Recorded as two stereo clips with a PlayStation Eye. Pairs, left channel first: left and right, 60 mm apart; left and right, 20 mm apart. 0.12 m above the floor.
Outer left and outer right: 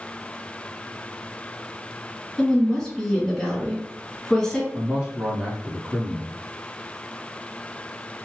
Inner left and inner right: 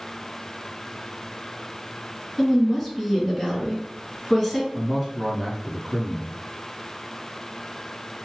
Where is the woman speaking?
10° left (ahead or behind), 1.5 m.